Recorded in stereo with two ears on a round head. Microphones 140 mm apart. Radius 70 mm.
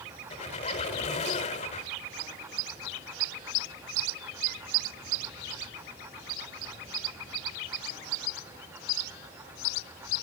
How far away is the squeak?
About 1.5 m.